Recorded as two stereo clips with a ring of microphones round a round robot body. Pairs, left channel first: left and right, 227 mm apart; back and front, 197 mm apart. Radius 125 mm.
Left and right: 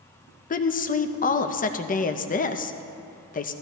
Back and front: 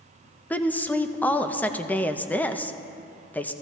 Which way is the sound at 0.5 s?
105° left.